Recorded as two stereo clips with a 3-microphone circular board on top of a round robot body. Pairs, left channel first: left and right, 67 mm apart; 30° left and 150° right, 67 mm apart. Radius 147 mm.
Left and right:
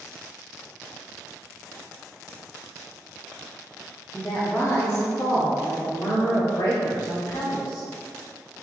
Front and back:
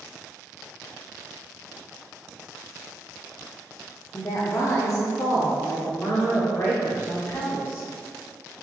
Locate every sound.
4.1 s a woman speaking: 20° left, 1.2 m; by 7.8 s 80° left, 2.5 m